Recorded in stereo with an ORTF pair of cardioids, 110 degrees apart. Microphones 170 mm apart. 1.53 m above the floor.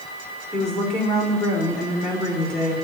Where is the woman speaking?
5° left, 6 m.